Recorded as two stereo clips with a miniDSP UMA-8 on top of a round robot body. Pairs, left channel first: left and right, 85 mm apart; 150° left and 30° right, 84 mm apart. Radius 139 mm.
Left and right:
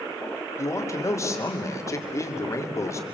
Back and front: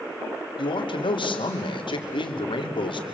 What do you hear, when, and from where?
0.6 s a man speaking: 145° left, 3 m